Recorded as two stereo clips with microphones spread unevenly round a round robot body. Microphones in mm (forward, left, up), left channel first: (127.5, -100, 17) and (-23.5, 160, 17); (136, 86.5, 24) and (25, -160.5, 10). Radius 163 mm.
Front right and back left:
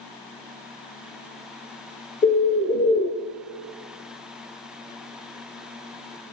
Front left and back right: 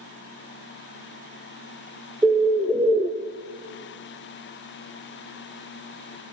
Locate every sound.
2.2 s a bird: 45° right, 0.6 m